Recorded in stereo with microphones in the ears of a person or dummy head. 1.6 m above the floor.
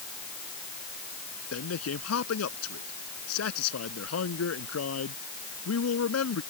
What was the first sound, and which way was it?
A man speaking, 90° left.